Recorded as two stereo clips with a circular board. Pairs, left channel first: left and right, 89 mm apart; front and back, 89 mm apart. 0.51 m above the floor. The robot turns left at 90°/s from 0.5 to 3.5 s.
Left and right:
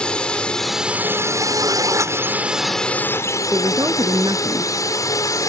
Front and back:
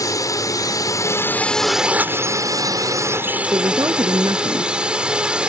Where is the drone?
15° left; by 5.5 s 105° left.